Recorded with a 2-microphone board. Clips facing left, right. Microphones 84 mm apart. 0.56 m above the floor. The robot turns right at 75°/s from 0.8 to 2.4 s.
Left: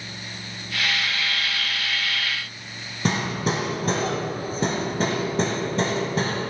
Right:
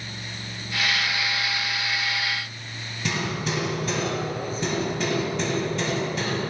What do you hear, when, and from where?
3.0 s hammering: 40° left (ahead or behind), 0.9 m